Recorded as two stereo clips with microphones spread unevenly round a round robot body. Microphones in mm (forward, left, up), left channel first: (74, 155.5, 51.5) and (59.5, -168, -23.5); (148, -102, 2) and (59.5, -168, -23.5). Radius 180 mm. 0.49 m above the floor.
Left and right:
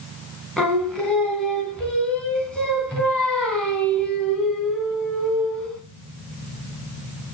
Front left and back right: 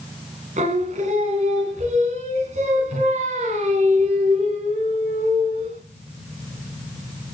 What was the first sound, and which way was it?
Singing, 175° left.